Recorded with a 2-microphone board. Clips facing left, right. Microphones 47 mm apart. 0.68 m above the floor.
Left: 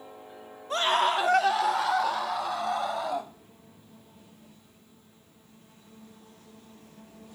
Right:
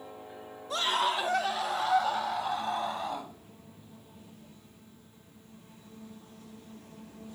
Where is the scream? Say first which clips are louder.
Left 4 dB; 40° left (ahead or behind), 1.2 m; by 3.3 s 80° left, 5 m.